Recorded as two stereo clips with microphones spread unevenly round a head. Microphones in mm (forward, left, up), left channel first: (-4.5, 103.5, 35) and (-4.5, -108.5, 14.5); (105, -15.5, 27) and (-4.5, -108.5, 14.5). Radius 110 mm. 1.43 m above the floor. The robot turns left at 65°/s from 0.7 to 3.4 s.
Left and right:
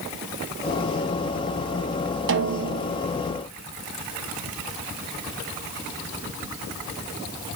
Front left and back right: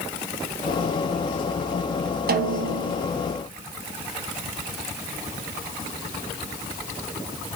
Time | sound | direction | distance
2.3 | a snare drum | 125° right | 0.7 m